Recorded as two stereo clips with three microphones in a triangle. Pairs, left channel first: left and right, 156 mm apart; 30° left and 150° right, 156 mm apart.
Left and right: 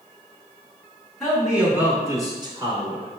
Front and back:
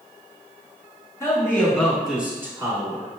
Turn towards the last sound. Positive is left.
turn(degrees=-105)